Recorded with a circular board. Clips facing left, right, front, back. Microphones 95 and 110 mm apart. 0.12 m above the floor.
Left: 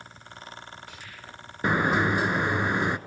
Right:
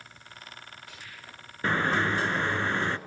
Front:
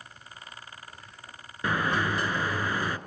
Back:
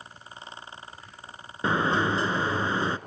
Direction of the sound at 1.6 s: 150° left.